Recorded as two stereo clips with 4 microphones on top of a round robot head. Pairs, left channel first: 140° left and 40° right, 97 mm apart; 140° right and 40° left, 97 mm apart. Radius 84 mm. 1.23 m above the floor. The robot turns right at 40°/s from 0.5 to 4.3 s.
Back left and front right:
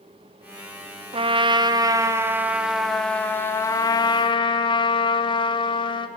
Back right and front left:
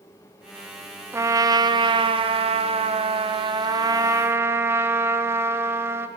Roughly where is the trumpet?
Ahead.